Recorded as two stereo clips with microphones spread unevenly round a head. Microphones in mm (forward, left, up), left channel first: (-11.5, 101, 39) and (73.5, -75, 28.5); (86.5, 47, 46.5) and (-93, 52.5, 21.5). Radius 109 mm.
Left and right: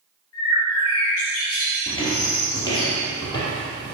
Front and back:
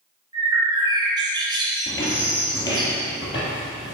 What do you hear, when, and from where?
0.3 s a bird: 110° left, 2 m
1.9 s footsteps: 60° left, 2 m; by 3.9 s 50° left, 3 m